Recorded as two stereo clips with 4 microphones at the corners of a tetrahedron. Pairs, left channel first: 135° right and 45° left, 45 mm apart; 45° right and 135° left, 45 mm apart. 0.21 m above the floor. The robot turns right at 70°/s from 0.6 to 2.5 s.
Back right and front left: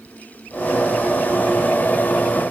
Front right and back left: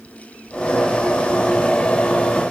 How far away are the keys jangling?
No keys jangling in this recording.